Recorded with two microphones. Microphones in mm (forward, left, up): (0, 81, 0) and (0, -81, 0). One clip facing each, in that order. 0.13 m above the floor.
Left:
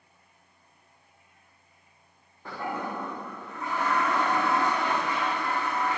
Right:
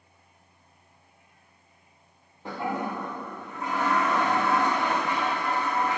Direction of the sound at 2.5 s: 20° right (ahead or behind).